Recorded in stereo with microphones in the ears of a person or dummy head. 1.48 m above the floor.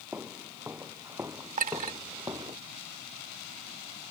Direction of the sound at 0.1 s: 5° right (ahead or behind).